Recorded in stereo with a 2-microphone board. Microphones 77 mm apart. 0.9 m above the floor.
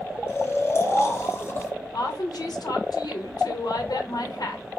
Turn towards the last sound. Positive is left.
turn(degrees=65)  # may be behind; listen again after turning